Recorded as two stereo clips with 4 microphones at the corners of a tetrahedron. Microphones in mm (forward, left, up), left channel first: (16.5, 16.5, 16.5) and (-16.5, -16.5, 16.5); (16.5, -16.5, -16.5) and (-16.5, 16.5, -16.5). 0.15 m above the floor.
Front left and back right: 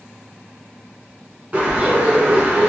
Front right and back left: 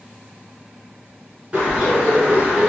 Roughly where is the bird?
Behind.